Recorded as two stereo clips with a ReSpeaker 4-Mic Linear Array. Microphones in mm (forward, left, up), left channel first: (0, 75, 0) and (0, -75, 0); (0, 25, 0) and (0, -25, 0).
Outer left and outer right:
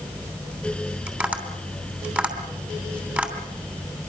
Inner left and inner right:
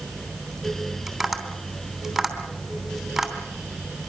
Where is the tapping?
10° right (ahead or behind), 3 m.